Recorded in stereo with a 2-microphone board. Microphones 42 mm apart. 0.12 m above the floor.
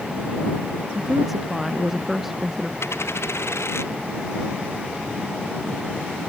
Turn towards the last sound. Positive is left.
turn(degrees=85)